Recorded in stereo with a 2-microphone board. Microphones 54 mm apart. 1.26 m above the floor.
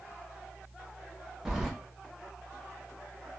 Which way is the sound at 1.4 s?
10° right (ahead or behind).